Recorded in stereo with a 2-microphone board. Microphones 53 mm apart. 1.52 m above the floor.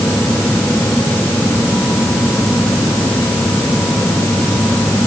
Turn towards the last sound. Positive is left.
No sound to turn to.